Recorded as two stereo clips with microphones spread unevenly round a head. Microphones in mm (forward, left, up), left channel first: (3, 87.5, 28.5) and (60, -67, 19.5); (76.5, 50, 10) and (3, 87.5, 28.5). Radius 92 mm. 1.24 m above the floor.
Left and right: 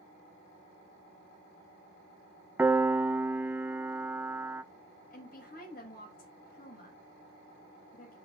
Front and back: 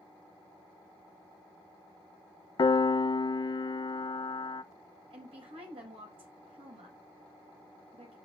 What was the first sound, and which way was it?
A piano, 10° left.